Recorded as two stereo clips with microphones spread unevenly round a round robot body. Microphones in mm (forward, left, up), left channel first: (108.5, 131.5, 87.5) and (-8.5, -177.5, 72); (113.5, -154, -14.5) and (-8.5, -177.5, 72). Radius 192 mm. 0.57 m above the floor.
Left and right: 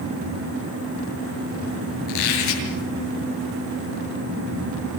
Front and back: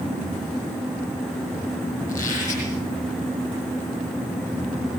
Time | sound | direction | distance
2.1 | a squeak | 90° left | 7.5 m